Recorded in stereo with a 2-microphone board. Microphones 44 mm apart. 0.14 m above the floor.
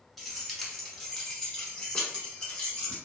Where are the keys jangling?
Centre (ahead or behind), 1.2 m; by 3.0 s 15° left (ahead or behind), 1.5 m.